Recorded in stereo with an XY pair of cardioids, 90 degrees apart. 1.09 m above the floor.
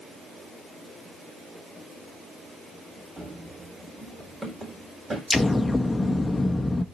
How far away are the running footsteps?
About 4 m.